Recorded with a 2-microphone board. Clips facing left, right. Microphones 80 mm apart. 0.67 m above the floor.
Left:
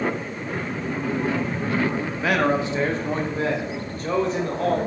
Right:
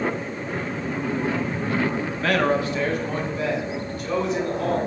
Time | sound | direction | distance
2.1 | a man speaking | 5° left (ahead or behind) | 0.9 m